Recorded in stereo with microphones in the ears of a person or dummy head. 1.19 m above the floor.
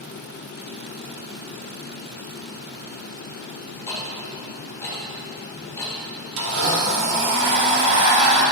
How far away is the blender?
About 1.7 m.